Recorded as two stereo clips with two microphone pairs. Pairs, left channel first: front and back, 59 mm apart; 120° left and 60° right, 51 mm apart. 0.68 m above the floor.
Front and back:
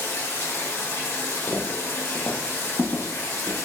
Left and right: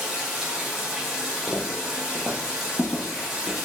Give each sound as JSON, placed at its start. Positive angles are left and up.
{"t": 0.0, "sound": "running water", "azimuth_deg": 20, "distance_m": 1.1}
{"t": 1.5, "sound": "footsteps", "azimuth_deg": 35, "distance_m": 1.1}